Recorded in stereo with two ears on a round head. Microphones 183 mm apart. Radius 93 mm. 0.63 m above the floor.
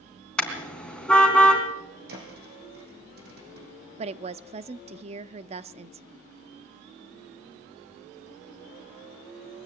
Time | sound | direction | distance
0.4 | a car horn | 5° left (ahead or behind) | 3 m
2.1 | a thud | 50° right (ahead or behind) | 5.5 m
4.0 | a woman speaking | 30° right (ahead or behind) | 0.6 m